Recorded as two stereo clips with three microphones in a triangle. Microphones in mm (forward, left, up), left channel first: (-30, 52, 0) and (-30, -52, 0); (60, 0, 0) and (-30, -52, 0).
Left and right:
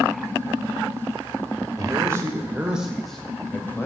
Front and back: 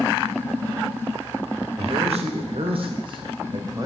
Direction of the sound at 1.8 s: 145° right.